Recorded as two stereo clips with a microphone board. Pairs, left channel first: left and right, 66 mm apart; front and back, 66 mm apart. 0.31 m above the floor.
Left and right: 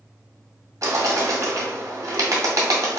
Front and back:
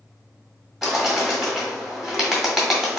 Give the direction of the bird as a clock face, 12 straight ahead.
3 o'clock.